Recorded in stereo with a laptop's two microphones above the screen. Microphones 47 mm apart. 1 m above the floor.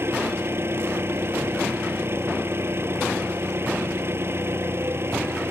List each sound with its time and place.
0.0 s an engine running: 60° right (ahead or behind)